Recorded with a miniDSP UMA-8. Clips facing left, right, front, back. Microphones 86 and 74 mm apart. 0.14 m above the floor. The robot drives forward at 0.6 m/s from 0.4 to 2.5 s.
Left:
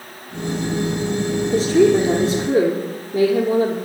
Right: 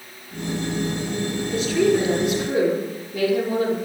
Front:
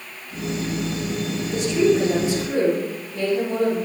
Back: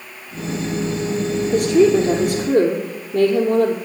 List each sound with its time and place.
1.5 s a woman speaking: 145° left, 3 m; by 3.8 s 150° left, 3 m